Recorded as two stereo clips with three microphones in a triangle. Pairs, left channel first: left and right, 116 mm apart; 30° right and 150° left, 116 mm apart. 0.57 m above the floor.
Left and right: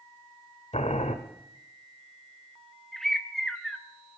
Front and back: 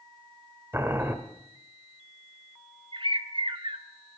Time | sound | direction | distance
0.7 | boiling | 80° left | 1.4 m
2.9 | a bird | 175° left | 1.0 m